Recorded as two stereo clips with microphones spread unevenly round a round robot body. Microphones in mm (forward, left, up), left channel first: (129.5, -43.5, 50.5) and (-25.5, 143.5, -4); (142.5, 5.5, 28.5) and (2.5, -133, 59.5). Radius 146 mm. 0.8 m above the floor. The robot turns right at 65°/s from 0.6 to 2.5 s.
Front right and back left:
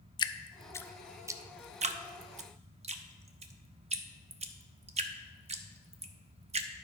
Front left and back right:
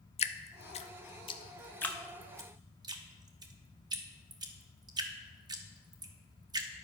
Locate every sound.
0.2 s dripping: 30° left, 0.5 m; by 6.7 s 155° left, 0.5 m